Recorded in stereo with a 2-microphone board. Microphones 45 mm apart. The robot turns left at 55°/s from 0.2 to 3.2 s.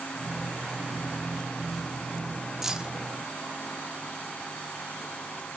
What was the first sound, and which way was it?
Keys jangling, 5° right (ahead or behind).